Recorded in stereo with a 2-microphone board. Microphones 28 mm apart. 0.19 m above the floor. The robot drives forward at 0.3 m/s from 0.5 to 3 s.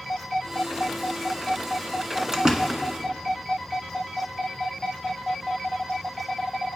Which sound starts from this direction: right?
A door slam, at 2.3 s.